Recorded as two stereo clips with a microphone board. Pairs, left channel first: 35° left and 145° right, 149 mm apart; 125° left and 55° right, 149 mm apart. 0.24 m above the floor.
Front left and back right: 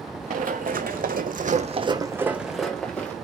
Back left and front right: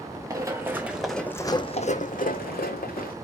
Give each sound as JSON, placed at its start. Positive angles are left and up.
{"t": 0.3, "sound": "running footsteps", "azimuth_deg": -120, "distance_m": 1.4}